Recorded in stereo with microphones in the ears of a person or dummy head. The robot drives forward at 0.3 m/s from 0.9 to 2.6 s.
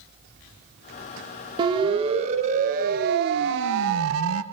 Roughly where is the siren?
Right.